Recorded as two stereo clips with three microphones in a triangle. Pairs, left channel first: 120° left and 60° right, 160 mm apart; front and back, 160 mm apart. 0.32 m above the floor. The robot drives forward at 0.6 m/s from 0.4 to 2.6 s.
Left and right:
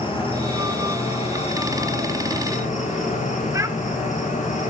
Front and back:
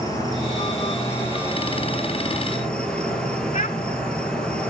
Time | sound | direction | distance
0.0 | an insect | 65° left | 4 m
3.5 | a child speaking | 5° left | 1.1 m